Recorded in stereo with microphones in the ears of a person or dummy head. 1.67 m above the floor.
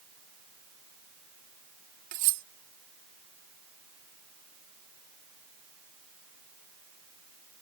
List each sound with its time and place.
2.1 s cutlery clinking: 50° right (ahead or behind)